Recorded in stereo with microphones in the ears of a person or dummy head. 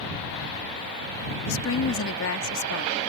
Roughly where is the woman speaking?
Left.